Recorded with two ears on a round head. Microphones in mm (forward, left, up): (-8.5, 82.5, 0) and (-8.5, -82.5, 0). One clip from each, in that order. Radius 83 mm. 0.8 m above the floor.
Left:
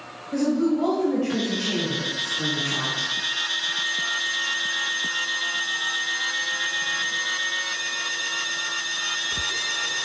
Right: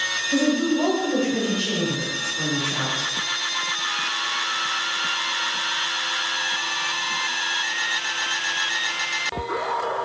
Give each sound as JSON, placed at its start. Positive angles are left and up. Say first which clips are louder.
{"t": 0.3, "sound": "a woman speaking", "louder": "left 2 dB", "side_deg": -15, "distance_m": 3.5}